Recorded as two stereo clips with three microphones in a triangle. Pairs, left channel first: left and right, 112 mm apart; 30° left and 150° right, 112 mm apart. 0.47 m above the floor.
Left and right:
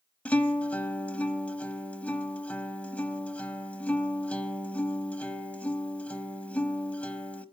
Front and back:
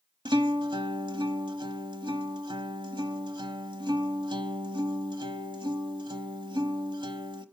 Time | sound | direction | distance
0.2 | a guitar | 165° left | 0.8 m